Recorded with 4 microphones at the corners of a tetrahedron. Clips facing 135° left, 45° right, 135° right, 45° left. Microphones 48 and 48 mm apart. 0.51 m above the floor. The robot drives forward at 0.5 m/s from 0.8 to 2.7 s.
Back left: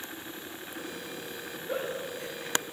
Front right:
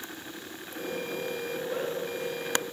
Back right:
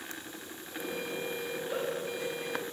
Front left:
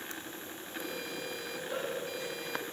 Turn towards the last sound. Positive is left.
turn(degrees=150)